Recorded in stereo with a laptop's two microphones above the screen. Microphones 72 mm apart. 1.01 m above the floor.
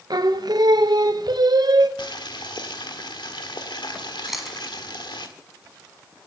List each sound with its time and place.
0.1 s singing: 65° right (ahead or behind), 0.7 m
2.0 s boiling: 80° left, 1.5 m
4.3 s chewing: 5° right (ahead or behind), 1.5 m